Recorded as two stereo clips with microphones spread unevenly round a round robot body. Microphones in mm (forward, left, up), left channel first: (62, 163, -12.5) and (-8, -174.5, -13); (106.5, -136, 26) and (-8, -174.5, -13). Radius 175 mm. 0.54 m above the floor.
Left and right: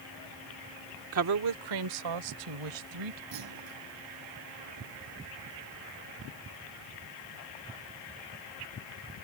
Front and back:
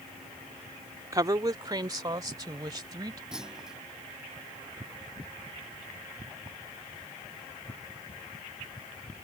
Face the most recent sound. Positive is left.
turn(degrees=-75)